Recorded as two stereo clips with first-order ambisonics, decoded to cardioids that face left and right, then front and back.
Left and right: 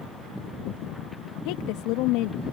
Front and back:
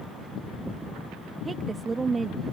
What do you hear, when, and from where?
1.4 s a woman speaking: 105° left